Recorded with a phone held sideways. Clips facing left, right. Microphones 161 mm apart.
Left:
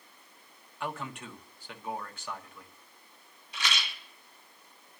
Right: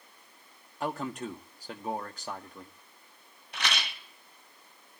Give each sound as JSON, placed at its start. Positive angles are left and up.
{"t": 0.8, "sound": "a man speaking", "side_deg": -40, "distance_m": 1.3}
{"t": 3.5, "sound": "a rattle", "side_deg": -65, "distance_m": 1.5}